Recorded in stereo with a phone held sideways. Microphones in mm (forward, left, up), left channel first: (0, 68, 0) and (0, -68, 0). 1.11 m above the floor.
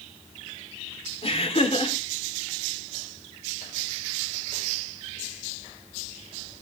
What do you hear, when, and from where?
1.2 s laughter: 45° left (ahead or behind), 4 m